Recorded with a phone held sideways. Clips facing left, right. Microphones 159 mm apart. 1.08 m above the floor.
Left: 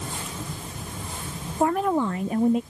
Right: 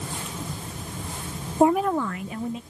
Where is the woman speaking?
25° right (ahead or behind); by 2.6 s 55° left (ahead or behind).